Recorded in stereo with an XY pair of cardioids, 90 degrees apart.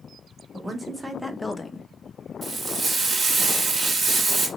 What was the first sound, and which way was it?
A woman speaking, 30° right.